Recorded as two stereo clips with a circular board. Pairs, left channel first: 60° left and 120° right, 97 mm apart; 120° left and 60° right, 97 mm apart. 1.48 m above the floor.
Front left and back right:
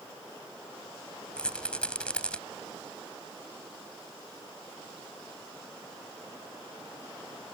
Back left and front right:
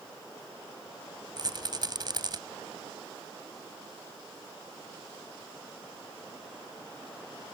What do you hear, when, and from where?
1.4 s a rattle: 20° right